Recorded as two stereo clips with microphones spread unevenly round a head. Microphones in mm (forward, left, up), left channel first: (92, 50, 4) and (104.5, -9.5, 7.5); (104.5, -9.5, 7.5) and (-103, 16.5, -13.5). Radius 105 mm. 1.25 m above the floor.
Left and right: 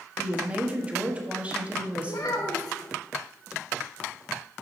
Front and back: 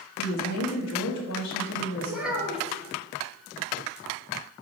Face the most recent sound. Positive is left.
turn(degrees=85)